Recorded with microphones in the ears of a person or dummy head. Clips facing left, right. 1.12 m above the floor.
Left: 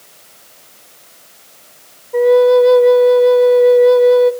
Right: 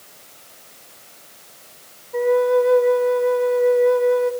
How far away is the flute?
About 1.1 m.